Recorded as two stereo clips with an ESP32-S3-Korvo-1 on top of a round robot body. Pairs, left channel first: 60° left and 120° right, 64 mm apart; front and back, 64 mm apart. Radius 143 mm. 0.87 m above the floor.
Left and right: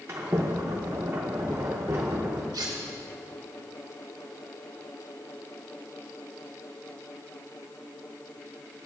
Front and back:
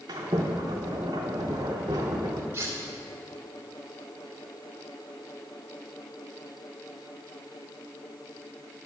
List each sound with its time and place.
0.1 s a sliding door: 165° right, 0.5 m
2.5 s cutlery clinking: 130° right, 1.7 m